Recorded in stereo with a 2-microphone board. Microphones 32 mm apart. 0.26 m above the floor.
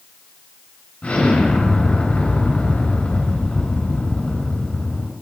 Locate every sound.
1.0 s an explosion: 55° left (ahead or behind), 2 m